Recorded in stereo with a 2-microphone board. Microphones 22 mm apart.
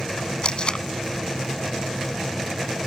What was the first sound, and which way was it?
Tape being pulled, 45° left (ahead or behind).